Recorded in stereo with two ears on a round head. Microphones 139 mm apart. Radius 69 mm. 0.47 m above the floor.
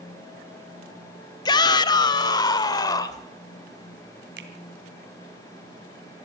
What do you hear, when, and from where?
1.4 s a shout: 25° left (ahead or behind), 0.8 m
4.4 s a finger snap: 80° right, 2.5 m